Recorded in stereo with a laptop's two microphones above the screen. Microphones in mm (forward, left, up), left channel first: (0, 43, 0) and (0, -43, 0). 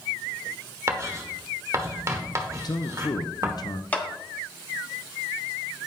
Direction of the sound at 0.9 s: 35° right (ahead or behind).